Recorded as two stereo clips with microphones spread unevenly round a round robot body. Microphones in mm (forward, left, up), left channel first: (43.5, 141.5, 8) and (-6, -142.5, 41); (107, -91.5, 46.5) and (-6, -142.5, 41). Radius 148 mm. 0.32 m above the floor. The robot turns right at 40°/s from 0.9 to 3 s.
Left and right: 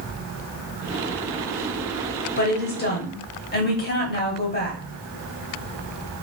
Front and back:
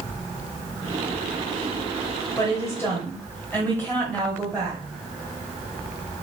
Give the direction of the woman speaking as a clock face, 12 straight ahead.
10 o'clock.